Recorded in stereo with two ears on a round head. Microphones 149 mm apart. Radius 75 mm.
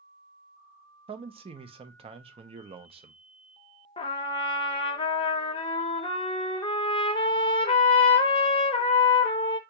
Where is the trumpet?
30° left (ahead or behind), 0.5 m.